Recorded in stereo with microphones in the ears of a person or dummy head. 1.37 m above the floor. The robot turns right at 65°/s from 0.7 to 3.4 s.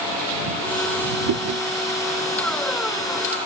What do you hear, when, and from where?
1.3 s chewing: 75° right (ahead or behind); by 1.6 s 55° right (ahead or behind)